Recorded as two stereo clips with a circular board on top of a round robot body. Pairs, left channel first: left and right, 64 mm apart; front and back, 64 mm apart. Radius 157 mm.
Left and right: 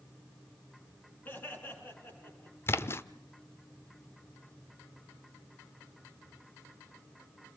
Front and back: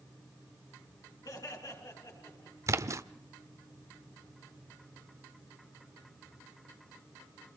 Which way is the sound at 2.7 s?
140° left.